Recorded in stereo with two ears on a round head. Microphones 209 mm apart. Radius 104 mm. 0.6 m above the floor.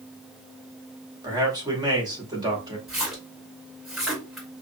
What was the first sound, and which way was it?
A man speaking, 20° right (ahead or behind).